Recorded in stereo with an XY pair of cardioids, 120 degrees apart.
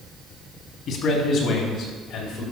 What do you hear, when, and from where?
0.9 s a man speaking: 65° left, 3 m; by 2.4 s 75° left, 4.5 m